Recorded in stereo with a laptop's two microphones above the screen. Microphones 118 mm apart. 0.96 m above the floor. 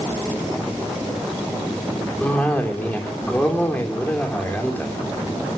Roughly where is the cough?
Centre.